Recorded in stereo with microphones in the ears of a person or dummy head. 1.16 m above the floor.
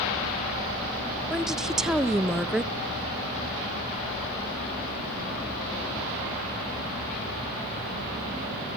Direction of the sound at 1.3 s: Centre (ahead or behind).